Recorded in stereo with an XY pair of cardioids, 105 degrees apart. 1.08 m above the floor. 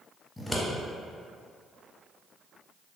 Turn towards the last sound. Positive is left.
turn(degrees=10)